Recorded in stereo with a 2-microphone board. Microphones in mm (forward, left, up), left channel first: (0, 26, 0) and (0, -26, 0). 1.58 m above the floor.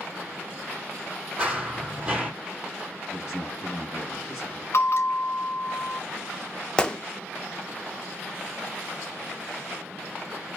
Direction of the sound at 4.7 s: 60° left (ahead or behind).